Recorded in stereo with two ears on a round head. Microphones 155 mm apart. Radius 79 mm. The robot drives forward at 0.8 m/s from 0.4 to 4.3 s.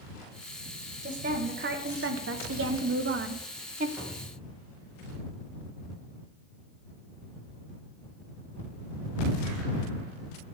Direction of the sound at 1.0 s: 40° right (ahead or behind).